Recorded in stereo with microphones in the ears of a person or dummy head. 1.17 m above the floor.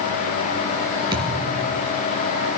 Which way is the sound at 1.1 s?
30° right (ahead or behind).